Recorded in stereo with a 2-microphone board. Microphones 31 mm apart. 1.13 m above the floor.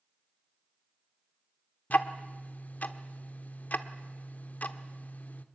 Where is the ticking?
60° left (ahead or behind), 1.3 m.